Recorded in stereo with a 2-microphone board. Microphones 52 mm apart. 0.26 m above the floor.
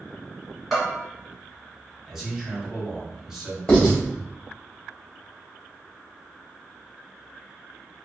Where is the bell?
5° right (ahead or behind), 1.3 m.